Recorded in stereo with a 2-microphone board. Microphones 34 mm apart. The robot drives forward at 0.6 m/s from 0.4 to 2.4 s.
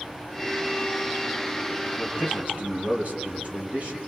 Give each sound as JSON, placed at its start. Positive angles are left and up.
{"t": 2.0, "sound": "a man speaking", "side_deg": -40, "distance_m": 5.0}